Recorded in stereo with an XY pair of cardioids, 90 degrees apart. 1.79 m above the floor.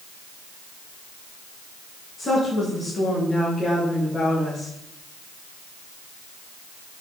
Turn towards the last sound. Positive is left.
turn(degrees=20)